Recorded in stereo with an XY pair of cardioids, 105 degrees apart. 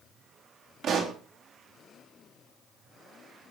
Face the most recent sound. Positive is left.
turn(degrees=-60)